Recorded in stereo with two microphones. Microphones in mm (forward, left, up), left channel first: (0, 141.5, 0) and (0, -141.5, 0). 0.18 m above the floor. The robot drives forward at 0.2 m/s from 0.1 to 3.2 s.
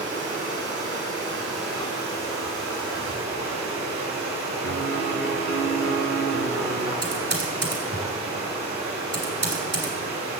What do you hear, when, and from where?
0.0 s running water: 25° right (ahead or behind), 2.5 m; by 10.4 s 20° right (ahead or behind), 3 m
4.6 s a piano: 50° right (ahead or behind), 1.9 m
7.0 s typing on a keyboard: 40° right (ahead or behind), 1.6 m